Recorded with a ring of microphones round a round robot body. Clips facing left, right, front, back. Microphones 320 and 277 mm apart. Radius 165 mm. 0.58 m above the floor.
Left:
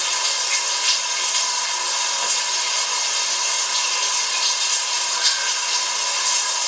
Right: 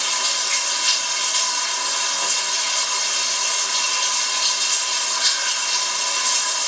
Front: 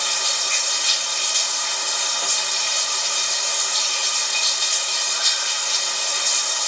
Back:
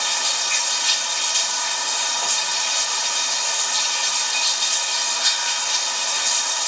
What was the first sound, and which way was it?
Running water, 75° right.